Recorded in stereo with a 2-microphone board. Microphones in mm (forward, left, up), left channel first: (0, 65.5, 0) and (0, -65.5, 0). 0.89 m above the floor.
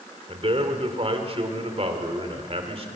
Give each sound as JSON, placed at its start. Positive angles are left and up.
{"t": 0.3, "sound": "a man speaking", "side_deg": -50, "distance_m": 2.5}